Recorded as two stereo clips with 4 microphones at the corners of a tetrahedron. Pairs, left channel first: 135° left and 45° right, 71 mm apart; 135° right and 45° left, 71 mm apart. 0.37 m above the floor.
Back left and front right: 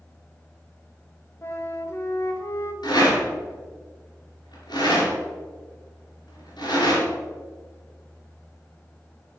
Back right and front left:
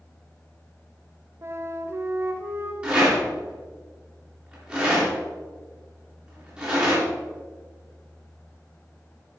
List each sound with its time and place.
1.4 s a flute: 90° left, 1.0 m
2.8 s a rattle: 120° left, 3 m